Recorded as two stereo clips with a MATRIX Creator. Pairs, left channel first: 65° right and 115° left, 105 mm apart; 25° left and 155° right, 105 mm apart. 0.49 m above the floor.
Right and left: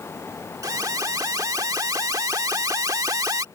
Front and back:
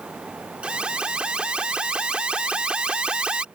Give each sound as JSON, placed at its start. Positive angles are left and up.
{"t": 0.6, "sound": "an alarm", "azimuth_deg": 130}